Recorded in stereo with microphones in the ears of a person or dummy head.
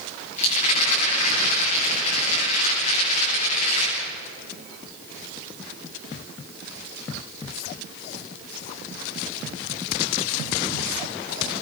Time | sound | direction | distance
0.4 | a rattle | 40° left (ahead or behind) | 10 m